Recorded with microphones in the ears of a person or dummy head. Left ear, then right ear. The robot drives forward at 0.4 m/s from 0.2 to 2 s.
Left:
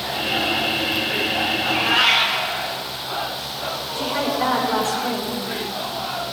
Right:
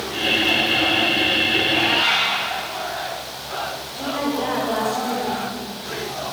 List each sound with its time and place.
1.6 s a cat meowing: 35° left (ahead or behind), 4.5 m
4.0 s a woman speaking: 45° left (ahead or behind), 7.5 m